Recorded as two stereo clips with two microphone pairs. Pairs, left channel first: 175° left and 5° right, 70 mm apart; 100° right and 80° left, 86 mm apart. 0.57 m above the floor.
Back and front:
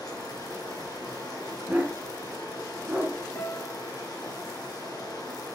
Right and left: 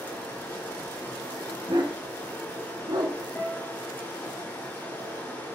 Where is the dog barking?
65° left, 1.5 m.